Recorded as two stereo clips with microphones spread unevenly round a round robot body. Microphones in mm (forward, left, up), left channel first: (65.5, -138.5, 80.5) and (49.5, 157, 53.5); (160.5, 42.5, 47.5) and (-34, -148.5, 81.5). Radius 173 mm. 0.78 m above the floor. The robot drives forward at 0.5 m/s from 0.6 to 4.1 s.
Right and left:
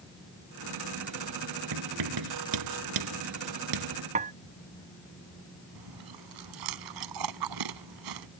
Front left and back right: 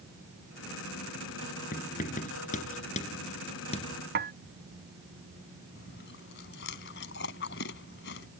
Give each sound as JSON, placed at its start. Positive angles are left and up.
{"t": 1.7, "sound": "writing", "azimuth_deg": 110}
{"t": 4.2, "sound": "dishes clattering", "azimuth_deg": 160}
{"t": 5.8, "sound": "chewing", "azimuth_deg": 105}